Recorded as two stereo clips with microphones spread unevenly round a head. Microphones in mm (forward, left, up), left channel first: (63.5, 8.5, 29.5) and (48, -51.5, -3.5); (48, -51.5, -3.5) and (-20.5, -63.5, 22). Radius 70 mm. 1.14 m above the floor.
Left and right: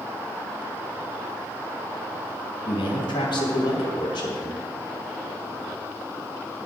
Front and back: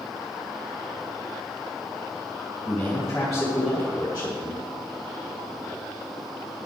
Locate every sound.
2.6 s a man speaking: 85° left, 1.9 m; by 4.6 s 120° left, 1.5 m